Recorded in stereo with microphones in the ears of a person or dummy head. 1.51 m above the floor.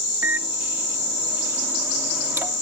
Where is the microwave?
20° right (ahead or behind).